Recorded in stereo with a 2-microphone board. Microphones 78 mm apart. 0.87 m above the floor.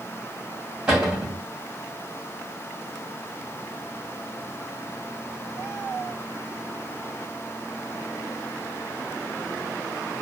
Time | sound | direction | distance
0.9 | a cupboard door | 15° right (ahead or behind) | 1.7 m